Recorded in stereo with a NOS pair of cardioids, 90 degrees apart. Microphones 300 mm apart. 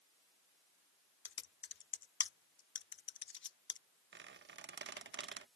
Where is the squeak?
40° right.